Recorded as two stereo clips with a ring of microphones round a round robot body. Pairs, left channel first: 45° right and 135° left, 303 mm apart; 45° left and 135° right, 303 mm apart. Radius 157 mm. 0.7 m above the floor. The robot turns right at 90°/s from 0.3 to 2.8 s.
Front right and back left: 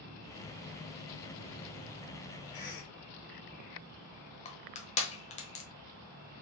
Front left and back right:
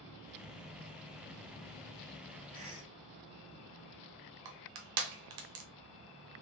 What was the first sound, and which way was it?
A cough, 75° right.